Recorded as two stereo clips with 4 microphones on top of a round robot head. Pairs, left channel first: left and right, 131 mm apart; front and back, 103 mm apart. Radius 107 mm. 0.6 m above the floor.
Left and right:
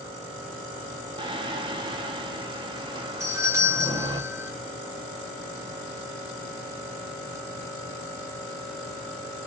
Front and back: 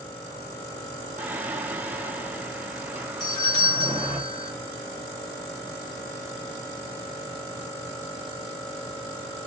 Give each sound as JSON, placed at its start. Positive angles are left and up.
{"t": 1.2, "sound": "singing", "azimuth_deg": -115, "distance_m": 0.8}
{"t": 3.2, "sound": "a doorbell", "azimuth_deg": -30, "distance_m": 1.6}